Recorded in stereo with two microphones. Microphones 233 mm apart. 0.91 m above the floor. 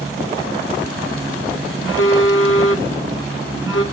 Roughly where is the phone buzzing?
Left.